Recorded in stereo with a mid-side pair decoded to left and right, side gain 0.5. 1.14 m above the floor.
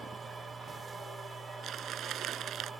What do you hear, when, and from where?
0.0 s a machine running: 35° right
1.6 s crumpling: 65° right